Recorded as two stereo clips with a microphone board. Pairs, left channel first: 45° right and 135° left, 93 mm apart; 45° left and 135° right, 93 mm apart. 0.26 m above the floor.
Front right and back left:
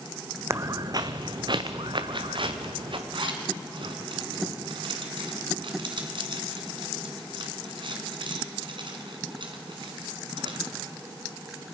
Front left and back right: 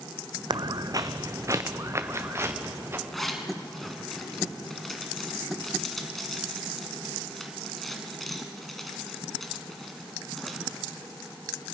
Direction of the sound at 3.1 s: 135° left.